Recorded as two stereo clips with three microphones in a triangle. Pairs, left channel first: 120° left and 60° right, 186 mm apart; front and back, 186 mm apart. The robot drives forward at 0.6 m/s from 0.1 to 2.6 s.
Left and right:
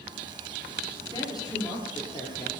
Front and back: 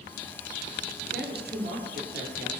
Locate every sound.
1.1 s a woman speaking: 175° right, 3 m